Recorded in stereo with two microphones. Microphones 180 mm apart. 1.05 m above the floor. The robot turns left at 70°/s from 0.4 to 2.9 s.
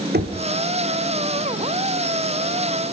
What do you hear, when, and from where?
0.1 s knocking: 65° right (ahead or behind), 1.6 m